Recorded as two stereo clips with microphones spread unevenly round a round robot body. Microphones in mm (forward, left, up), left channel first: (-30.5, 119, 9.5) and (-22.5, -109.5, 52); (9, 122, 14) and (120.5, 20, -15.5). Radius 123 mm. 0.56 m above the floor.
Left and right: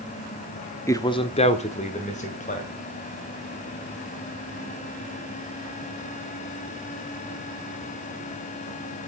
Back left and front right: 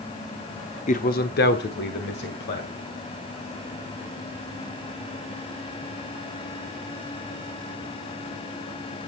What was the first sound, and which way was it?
A man speaking, 145° left.